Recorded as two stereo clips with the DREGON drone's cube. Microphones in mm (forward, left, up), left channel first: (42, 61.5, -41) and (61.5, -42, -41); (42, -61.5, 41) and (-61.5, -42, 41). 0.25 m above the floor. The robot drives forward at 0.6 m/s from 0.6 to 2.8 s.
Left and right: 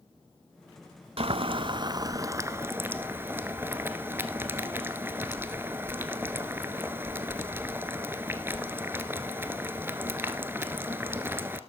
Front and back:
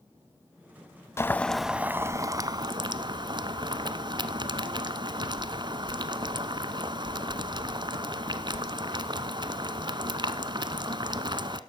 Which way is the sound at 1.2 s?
75° right.